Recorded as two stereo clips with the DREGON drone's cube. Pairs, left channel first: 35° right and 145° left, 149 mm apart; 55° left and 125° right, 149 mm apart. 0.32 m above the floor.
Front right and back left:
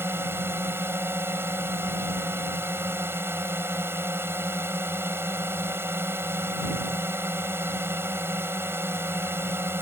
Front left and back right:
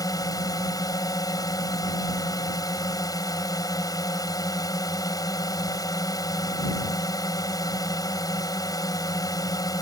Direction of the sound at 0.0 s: 90° left.